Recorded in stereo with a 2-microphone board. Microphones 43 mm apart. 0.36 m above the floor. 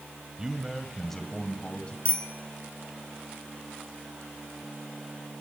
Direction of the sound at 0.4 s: 20° right (ahead or behind).